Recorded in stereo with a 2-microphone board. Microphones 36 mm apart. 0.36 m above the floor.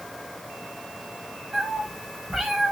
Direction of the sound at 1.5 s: 25° right (ahead or behind).